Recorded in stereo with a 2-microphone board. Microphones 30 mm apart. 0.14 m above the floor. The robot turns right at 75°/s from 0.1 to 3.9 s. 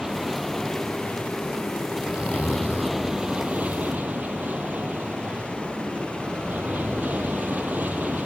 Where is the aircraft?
25° right; by 8.2 s 100° right.